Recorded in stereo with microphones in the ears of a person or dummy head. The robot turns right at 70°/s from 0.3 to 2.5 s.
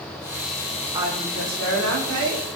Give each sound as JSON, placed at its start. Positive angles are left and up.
{"t": 0.9, "sound": "a woman speaking", "azimuth_deg": -165, "distance_m": 6.0}